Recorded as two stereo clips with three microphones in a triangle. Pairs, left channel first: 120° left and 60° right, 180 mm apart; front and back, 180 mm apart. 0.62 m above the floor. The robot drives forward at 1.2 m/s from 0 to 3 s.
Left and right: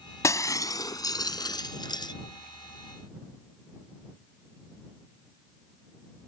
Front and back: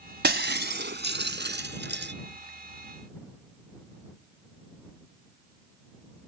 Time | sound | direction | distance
0.2 | breaking glass | 170° right | ?